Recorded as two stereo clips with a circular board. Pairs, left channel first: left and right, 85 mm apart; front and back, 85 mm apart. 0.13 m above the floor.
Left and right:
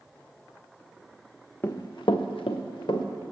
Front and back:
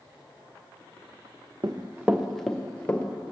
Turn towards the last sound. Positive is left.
turn(degrees=70)